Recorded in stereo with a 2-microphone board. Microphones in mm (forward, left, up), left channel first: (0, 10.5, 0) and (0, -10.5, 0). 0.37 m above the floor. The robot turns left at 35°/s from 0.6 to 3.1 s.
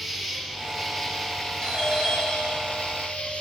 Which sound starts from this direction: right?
A doorbell, at 1.6 s.